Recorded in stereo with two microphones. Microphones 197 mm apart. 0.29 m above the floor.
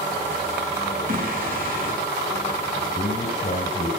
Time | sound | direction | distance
1.1 | singing | 45° right (ahead or behind) | 4 m
3.0 | a man speaking | 25° left (ahead or behind) | 4.5 m